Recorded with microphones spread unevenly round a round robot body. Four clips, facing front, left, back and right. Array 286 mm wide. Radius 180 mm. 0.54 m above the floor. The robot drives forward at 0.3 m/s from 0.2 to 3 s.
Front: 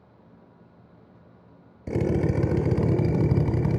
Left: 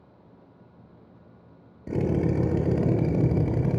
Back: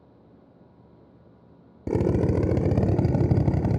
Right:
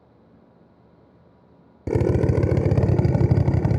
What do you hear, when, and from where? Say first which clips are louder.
1.9 s a drill: right 4 dB, back 2 dB; 105° right, 1.0 m; by 3.8 s 125° right, 1.1 m